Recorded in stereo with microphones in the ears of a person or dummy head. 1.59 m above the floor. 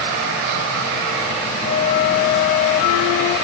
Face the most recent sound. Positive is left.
turn(degrees=55)  # may be behind; listen again after turning